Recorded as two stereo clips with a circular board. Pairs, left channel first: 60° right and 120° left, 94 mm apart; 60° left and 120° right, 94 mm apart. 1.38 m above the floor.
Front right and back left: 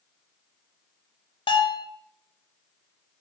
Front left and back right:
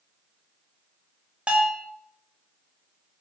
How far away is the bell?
About 0.6 m.